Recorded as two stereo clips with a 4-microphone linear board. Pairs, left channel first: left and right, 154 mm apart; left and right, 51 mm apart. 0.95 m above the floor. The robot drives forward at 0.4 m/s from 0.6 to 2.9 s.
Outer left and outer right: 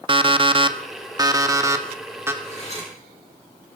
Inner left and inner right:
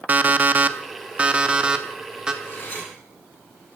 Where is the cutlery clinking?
45° left (ahead or behind), 4 m.